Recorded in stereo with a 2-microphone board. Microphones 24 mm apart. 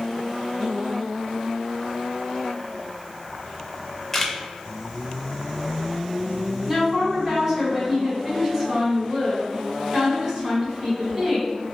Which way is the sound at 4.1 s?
10° left (ahead or behind).